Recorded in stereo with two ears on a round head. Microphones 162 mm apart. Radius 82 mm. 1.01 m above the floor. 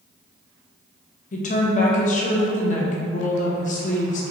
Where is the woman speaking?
45° left (ahead or behind), 0.7 m.